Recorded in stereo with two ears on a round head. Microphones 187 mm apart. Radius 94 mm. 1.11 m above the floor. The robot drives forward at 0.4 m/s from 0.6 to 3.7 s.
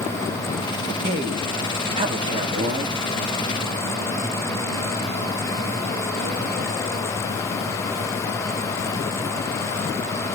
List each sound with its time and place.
1.0 s a man speaking: 30° right (ahead or behind), 2.5 m; by 3.0 s 25° right (ahead or behind), 3 m